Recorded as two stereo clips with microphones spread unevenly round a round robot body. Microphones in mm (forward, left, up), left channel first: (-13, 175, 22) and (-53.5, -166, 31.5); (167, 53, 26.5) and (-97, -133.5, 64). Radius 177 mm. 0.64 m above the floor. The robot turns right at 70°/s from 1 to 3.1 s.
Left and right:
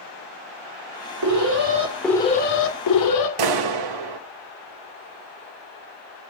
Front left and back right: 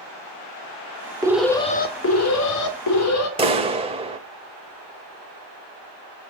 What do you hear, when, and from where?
1.2 s an alarm: 65° right, 2.5 m; by 3.3 s 70° left, 2.5 m
3.4 s a clap: 70° right, 2.5 m